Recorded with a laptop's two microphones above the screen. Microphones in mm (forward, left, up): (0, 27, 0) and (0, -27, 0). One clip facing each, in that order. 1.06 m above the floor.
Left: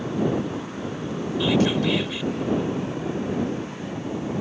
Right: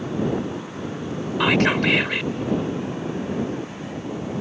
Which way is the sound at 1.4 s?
70° right (ahead or behind).